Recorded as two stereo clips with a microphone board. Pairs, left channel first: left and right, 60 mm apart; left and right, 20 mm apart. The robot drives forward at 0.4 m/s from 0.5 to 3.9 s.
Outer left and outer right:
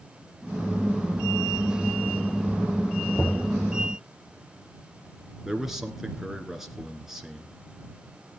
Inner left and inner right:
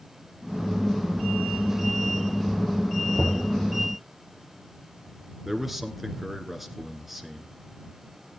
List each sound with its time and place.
3.1 s knocking: 30° left (ahead or behind), 2.5 m; by 3.5 s 25° left (ahead or behind), 2.5 m
5.5 s a man speaking: 5° right (ahead or behind), 1.7 m